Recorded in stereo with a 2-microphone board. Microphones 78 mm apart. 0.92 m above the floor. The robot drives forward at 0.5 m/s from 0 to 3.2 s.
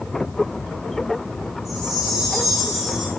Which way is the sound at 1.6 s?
5° right (ahead or behind).